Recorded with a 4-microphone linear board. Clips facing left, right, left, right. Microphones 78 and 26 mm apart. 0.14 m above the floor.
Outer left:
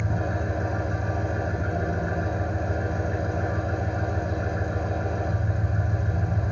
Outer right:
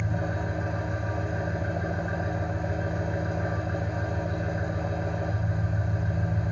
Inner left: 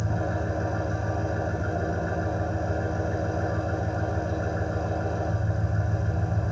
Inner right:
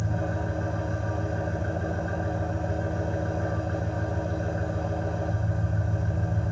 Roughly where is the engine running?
Left.